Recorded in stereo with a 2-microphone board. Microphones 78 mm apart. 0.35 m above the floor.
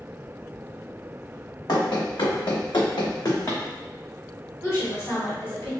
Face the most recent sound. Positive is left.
turn(degrees=35)  # may be behind; listen again after turning